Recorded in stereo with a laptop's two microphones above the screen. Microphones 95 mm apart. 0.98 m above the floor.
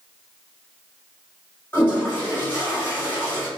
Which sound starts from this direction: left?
A toilet flushing, at 1.7 s.